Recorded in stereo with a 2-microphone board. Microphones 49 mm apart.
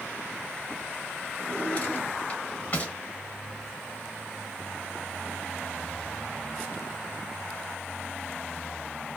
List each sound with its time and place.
1.4 s a drawer: 30° left (ahead or behind), 1.4 m